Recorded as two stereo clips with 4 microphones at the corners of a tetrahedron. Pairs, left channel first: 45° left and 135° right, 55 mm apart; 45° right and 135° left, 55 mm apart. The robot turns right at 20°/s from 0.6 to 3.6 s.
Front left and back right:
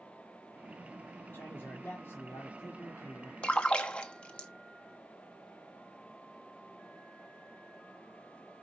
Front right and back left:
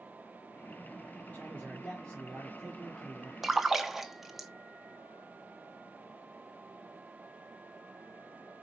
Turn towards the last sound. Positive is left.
turn(degrees=60)